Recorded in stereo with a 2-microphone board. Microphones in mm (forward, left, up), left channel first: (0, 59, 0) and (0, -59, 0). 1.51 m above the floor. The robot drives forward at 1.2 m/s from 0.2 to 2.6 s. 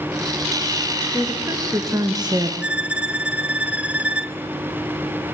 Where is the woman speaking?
20° right (ahead or behind), 3 m; by 2.5 s 45° right (ahead or behind), 1.6 m.